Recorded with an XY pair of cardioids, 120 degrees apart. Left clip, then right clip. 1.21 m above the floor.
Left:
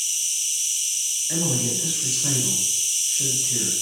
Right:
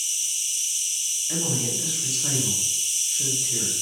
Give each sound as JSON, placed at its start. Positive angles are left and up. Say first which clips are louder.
{"t": 0.0, "sound": "an insect", "louder": "left 2 dB", "azimuth_deg": 5, "distance_m": 1.2}
{"t": 1.3, "sound": "a man speaking", "louder": "left 2 dB", "azimuth_deg": 0, "distance_m": 1.1}